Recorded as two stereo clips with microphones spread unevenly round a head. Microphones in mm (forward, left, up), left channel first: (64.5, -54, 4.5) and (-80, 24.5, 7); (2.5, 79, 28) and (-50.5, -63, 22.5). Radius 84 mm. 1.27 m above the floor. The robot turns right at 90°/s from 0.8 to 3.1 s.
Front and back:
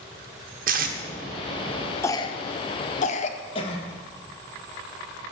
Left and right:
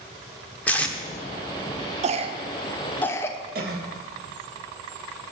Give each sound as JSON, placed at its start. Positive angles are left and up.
{"t": 0.7, "sound": "tape being pulled", "azimuth_deg": 150, "distance_m": 0.8}
{"t": 2.0, "sound": "a cough", "azimuth_deg": -95, "distance_m": 0.7}
{"t": 3.5, "sound": "a cough", "azimuth_deg": -85, "distance_m": 1.3}